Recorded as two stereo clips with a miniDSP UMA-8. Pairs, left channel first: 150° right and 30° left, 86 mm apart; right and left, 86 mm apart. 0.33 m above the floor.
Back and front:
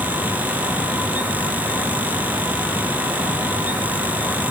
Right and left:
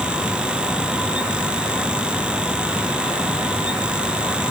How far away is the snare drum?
No snare drum in this recording.